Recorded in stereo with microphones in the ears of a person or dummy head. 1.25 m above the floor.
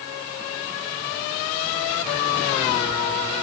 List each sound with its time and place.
Only background noise.